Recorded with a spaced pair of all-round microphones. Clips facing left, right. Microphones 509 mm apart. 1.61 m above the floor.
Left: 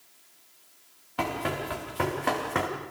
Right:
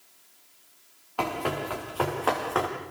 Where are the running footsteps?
40° left (ahead or behind), 7 m; by 2.7 s 45° left (ahead or behind), 4.5 m.